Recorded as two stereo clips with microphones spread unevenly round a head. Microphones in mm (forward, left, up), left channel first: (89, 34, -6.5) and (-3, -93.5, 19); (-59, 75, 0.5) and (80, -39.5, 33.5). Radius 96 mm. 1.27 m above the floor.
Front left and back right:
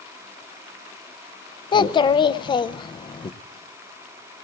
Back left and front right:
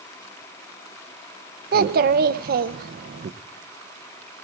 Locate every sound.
1.7 s a child speaking: 10° right, 0.6 m